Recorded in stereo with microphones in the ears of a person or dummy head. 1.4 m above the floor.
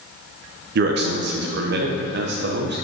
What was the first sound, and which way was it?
A man speaking, 55° right (ahead or behind).